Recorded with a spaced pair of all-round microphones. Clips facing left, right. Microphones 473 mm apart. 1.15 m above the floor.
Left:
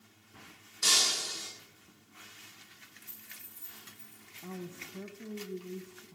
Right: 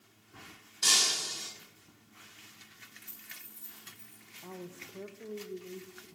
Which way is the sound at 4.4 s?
30° left (ahead or behind).